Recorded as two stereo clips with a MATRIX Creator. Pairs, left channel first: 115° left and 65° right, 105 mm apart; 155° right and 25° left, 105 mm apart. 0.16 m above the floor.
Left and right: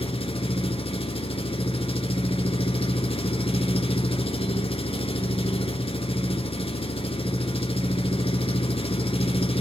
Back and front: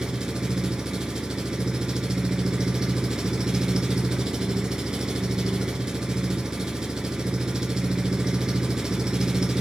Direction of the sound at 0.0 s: 105° left.